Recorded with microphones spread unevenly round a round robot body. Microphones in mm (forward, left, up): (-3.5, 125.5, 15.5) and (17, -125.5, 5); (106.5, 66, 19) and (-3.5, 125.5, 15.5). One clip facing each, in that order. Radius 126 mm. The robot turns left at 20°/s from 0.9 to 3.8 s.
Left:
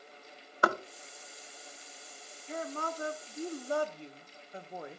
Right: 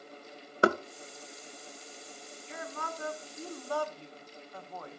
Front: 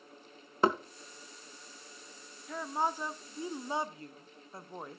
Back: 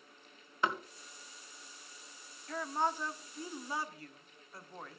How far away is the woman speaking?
About 0.9 m.